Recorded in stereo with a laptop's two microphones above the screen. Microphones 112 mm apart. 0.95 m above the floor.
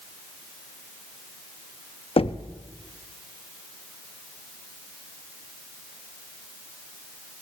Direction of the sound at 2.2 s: 60° left (ahead or behind).